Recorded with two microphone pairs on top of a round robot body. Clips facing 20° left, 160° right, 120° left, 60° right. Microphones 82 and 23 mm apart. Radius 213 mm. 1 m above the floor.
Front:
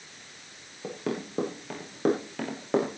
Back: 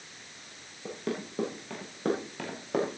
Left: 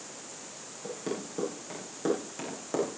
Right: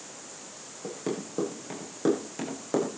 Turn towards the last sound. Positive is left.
turn(degrees=25)